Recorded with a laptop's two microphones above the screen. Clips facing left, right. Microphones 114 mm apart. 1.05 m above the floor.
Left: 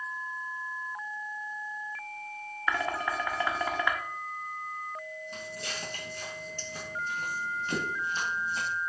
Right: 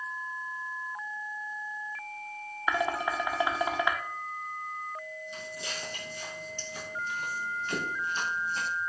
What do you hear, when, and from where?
2.7 s dishes clattering: 15° right (ahead or behind), 0.6 m
5.3 s footsteps: 55° left (ahead or behind), 1.8 m; by 8.7 s 15° left (ahead or behind), 1.7 m